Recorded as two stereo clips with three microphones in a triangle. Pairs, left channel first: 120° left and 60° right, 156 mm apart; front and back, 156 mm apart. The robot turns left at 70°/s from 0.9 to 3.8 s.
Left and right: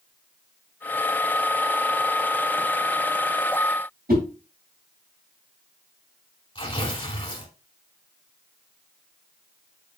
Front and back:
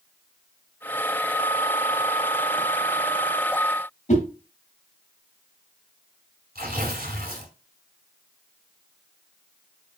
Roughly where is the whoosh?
Ahead right.